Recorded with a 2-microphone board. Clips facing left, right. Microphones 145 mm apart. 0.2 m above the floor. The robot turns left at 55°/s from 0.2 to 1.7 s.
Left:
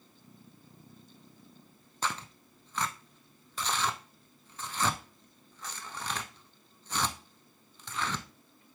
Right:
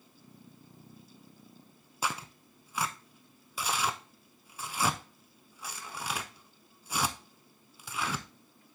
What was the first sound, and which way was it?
Tearing paper, 10° right (ahead or behind).